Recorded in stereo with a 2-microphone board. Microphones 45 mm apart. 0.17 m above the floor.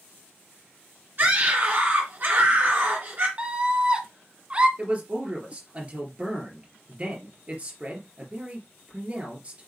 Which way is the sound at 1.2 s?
35° right (ahead or behind).